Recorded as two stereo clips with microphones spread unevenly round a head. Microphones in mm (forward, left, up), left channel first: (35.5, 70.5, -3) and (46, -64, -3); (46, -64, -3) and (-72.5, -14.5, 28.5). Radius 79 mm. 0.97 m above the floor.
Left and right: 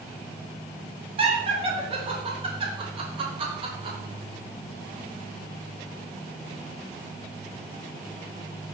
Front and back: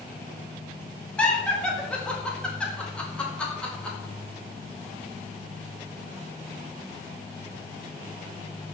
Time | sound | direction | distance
1.2 | laughter | 80° right | 1.0 m